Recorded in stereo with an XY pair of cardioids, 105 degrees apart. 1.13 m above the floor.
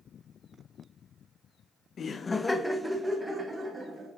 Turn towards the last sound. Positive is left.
turn(degrees=-35)